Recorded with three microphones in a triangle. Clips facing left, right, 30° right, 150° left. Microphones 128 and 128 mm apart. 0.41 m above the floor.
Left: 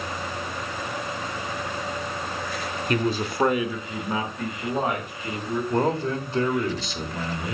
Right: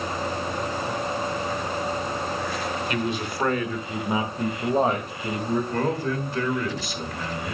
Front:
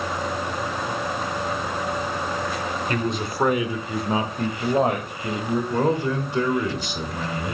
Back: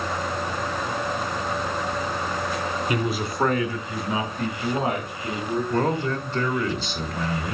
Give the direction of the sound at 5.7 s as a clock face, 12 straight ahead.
11 o'clock.